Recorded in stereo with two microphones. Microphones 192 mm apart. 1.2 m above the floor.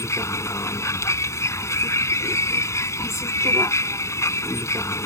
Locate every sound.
0.0 s a vehicle: 15° left (ahead or behind)